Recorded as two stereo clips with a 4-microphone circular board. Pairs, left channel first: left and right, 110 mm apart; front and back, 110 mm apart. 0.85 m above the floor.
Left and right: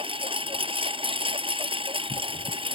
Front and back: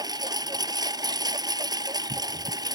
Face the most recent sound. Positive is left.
turn(degrees=-125)